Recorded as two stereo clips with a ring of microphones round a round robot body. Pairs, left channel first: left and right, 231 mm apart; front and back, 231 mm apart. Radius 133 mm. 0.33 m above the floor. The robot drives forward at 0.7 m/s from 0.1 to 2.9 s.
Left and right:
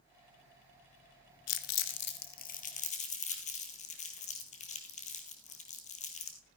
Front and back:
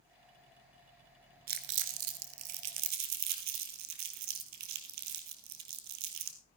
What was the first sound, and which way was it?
Crumpling, 125° left.